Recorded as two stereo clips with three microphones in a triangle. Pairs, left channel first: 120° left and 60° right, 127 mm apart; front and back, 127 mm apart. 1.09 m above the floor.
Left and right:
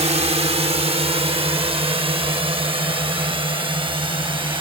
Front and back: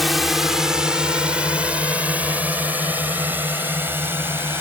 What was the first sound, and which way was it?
A drone, 90° right.